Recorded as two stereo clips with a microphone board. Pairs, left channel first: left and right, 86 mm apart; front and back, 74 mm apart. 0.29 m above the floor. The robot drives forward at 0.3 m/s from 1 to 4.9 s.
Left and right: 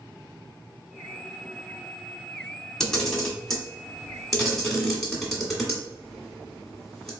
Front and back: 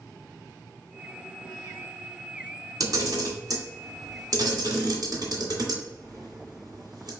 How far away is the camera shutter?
About 1.3 m.